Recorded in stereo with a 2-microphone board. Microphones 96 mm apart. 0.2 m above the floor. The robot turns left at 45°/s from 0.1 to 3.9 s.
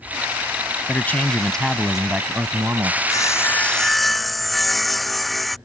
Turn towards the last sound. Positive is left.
turn(degrees=0)